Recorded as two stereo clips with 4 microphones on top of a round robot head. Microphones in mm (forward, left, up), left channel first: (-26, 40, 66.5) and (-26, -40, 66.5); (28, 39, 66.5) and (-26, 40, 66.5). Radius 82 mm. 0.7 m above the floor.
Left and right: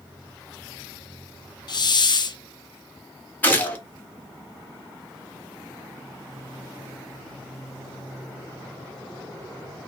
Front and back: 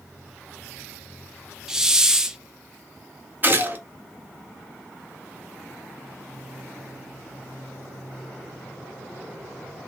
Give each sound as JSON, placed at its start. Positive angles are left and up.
{"t": 1.7, "sound": "a hiss", "azimuth_deg": 100, "distance_m": 0.5}
{"t": 3.4, "sound": "a gunshot", "azimuth_deg": 150, "distance_m": 1.1}